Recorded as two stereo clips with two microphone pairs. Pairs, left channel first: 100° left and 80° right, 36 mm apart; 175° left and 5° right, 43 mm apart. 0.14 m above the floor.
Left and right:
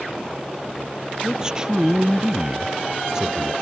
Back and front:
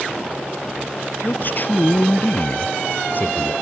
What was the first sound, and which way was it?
A man speaking, 150° right.